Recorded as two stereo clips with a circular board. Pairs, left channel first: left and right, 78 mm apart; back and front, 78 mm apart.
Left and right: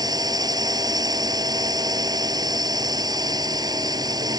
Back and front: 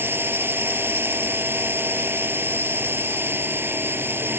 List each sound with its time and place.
0.0 s a drone: 60° right